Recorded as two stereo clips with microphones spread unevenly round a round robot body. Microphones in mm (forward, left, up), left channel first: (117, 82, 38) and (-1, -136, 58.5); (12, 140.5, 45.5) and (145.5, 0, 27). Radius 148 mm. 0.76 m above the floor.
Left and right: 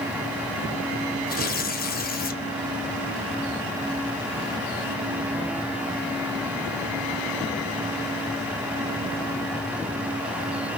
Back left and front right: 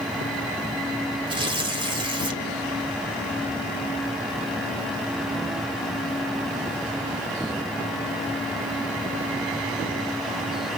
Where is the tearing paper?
15° left, 2 m.